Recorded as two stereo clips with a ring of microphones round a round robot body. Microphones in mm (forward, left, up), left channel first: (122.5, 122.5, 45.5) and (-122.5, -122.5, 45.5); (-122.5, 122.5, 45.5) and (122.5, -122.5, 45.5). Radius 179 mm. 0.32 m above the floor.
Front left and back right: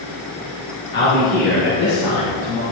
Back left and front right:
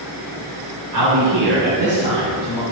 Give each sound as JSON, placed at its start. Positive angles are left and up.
{"t": 0.9, "sound": "a man speaking", "azimuth_deg": -10, "distance_m": 2.5}